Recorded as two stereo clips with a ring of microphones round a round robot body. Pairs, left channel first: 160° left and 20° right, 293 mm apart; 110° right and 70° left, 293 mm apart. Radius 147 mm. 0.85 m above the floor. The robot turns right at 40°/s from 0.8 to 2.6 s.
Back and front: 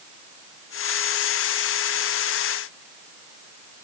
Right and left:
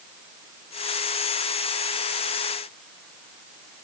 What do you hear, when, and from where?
Only background noise.